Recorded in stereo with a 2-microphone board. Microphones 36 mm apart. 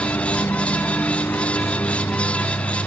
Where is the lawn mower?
75° left (ahead or behind); by 2.9 s 80° left.